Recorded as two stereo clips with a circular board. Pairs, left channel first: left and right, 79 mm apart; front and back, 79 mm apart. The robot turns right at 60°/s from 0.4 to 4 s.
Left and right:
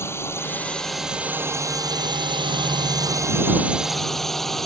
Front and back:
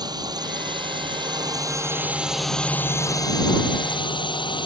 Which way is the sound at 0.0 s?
150° left.